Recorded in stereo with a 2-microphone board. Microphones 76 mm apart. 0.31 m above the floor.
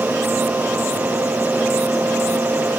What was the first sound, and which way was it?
Only background noise.